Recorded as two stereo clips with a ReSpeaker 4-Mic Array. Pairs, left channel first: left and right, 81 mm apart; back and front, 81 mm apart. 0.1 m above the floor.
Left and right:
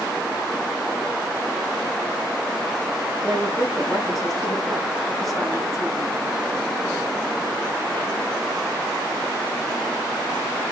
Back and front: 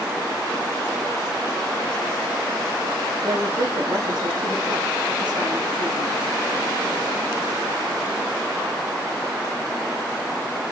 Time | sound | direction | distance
3.2 | a woman speaking | straight ahead | 6 m